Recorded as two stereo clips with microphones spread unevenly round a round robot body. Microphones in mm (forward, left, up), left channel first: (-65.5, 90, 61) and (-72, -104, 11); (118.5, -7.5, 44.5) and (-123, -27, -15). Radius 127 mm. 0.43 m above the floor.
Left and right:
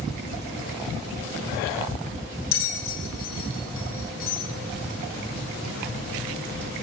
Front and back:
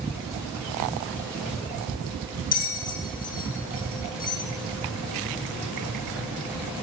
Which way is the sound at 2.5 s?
65° left.